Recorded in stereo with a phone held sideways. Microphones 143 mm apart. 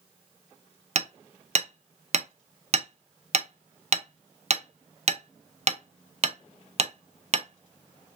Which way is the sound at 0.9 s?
50° right (ahead or behind).